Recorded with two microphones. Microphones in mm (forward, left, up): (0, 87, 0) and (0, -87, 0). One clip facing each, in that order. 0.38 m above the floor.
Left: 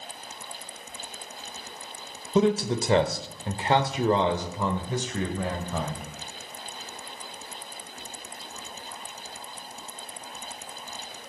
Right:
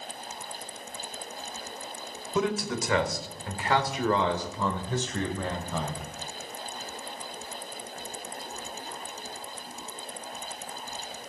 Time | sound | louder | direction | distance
2.4 | a man speaking | left 6 dB | 30° left (ahead or behind) | 1.1 m